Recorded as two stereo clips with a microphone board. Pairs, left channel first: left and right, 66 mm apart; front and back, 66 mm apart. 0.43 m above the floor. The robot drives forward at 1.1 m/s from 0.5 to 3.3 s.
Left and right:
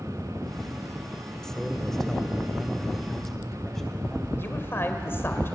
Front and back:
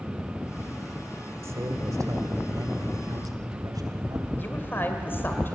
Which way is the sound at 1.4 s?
170° left.